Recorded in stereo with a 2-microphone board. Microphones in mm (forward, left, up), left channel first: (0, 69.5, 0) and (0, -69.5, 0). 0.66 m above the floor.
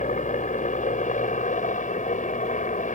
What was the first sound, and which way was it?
A helicopter, 60° left (ahead or behind).